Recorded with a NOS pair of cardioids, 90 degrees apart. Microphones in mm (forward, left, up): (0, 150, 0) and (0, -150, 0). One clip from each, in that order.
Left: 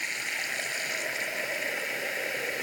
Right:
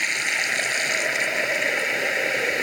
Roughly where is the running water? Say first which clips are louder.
Right 9 dB; ahead right.